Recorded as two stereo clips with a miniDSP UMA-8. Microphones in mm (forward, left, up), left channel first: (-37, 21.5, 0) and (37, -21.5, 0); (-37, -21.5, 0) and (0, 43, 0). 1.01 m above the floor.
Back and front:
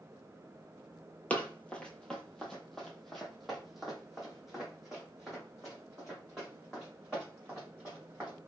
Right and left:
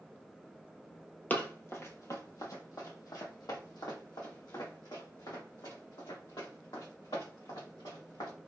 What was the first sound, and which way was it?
Running footsteps, 150° right.